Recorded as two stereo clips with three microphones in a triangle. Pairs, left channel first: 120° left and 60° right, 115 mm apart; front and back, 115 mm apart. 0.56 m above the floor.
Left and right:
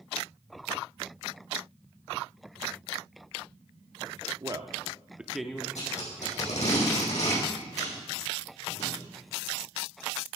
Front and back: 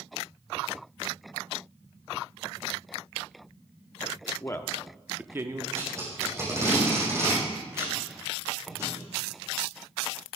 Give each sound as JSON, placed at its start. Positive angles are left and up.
{"t": 4.4, "sound": "a man speaking", "azimuth_deg": -40, "distance_m": 0.8}
{"t": 5.8, "sound": "tape being pulled", "azimuth_deg": 115, "distance_m": 6.5}